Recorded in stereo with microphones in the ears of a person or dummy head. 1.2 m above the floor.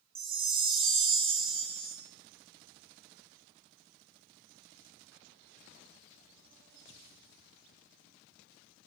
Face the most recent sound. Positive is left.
turn(degrees=-25)  # may be behind; listen again after turning